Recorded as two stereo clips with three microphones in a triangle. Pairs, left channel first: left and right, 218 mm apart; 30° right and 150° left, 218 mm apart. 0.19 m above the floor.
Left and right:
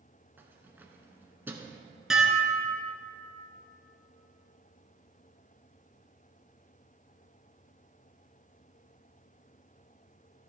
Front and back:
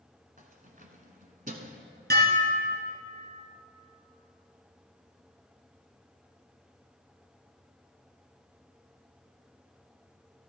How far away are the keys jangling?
About 1.2 m.